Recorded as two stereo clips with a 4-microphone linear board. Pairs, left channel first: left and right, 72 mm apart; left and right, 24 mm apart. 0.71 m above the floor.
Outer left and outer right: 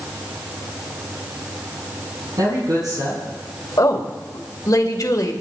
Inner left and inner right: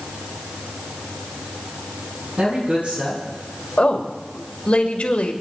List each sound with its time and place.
2.4 s a man speaking: 60° right (ahead or behind), 7 m
3.8 s a woman speaking: 55° left (ahead or behind), 2.5 m